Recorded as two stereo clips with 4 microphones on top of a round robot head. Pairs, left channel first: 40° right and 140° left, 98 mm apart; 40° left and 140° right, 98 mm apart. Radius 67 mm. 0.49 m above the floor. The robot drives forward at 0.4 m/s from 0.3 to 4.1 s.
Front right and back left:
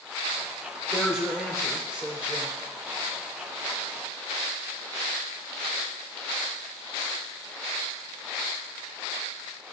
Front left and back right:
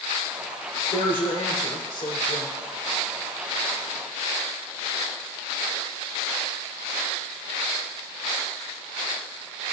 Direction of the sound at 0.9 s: 50° left.